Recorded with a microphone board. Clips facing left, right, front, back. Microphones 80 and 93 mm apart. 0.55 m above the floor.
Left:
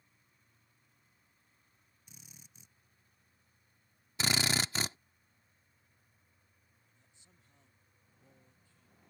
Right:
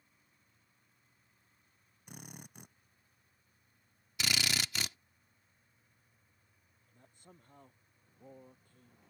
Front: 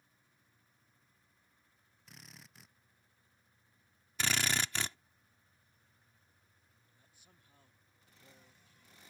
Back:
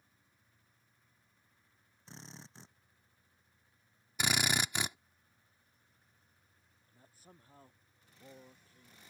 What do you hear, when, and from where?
2.1 s a drill: 120° right
4.2 s a drill: 115° left
6.9 s a man speaking: 125° right